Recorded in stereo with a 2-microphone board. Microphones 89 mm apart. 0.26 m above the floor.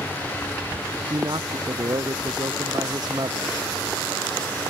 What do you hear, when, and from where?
1.1 s a man speaking: 55° right (ahead or behind)